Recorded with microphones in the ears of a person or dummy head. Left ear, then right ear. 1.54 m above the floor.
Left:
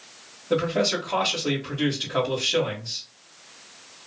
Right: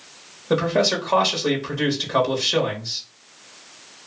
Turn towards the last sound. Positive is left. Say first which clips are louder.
# right 3 dB
turn(degrees=-65)  # may be behind; listen again after turning